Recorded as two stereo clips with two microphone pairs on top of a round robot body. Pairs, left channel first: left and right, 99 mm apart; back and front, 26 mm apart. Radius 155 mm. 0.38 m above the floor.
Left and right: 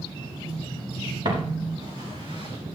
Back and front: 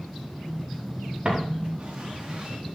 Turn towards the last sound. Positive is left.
turn(degrees=-55)